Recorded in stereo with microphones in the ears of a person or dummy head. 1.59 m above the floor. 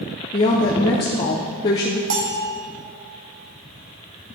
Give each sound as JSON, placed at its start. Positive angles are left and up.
{"t": 0.3, "sound": "a woman speaking", "side_deg": 15, "distance_m": 0.5}
{"t": 2.1, "sound": "a bell", "side_deg": -65, "distance_m": 1.3}